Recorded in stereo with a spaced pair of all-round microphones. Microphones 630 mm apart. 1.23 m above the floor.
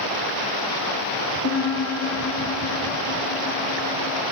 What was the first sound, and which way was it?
A piano, 25° left (ahead or behind).